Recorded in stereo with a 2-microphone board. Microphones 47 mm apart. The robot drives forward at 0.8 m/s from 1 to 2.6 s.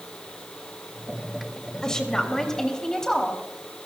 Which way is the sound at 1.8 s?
15° left (ahead or behind).